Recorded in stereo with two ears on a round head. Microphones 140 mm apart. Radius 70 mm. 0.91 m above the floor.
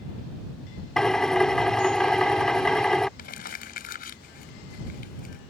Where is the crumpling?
60° left (ahead or behind).